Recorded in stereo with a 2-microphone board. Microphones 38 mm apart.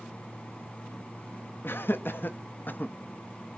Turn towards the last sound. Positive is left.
turn(degrees=45)  # may be behind; listen again after turning